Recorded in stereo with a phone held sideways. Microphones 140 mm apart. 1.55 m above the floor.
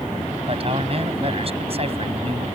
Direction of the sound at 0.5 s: 45° right (ahead or behind).